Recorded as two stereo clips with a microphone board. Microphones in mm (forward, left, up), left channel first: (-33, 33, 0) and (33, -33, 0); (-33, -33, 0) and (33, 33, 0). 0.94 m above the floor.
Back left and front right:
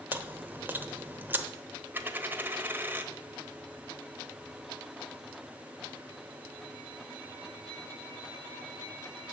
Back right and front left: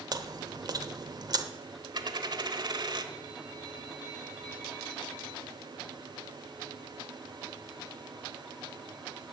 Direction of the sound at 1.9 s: 20° left.